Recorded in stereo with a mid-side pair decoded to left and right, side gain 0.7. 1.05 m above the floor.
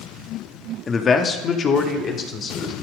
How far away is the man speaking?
About 1.7 m.